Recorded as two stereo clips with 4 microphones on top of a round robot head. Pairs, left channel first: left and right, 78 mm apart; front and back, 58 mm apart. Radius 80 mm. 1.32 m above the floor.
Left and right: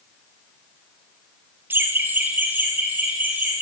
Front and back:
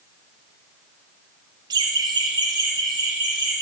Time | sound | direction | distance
1.7 | laughter | 155° right | 0.9 m